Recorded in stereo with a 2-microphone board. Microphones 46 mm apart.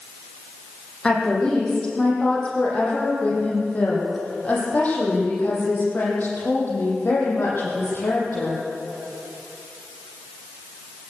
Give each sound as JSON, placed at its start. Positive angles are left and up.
{"t": 1.0, "sound": "a woman speaking", "side_deg": 15, "distance_m": 8.5}